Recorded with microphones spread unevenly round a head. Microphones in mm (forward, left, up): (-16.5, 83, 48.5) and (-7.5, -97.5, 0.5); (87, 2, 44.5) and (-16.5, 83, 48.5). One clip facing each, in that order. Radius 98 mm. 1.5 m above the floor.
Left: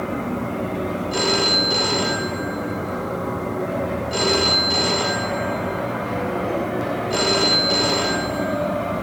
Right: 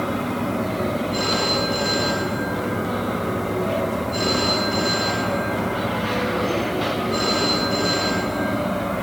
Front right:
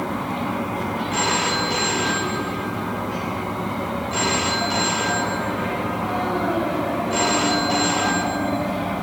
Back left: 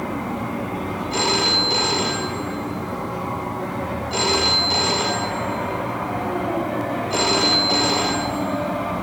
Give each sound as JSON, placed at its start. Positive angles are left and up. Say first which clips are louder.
{"t": 1.1, "sound": "a phone ringing", "louder": "left 1 dB, back left 3 dB", "azimuth_deg": 85, "distance_m": 4.0}